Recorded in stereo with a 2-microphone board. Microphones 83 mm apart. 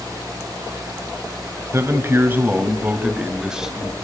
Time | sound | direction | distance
1.7 | a man speaking | 35° right (ahead or behind) | 2.0 m